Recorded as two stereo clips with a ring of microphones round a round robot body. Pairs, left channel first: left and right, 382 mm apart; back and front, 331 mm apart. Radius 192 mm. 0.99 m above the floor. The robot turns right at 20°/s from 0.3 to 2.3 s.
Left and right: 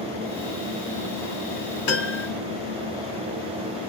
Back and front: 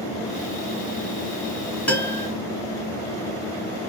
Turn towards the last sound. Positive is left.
turn(degrees=105)